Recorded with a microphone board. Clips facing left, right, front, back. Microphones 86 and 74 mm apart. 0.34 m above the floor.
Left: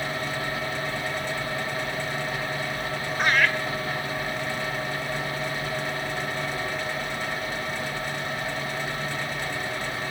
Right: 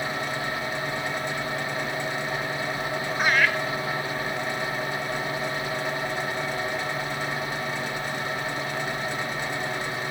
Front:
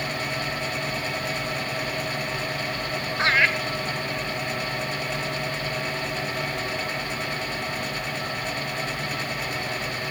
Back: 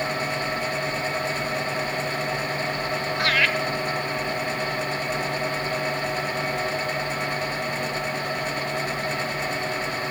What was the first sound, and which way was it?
Laughter, 10° right.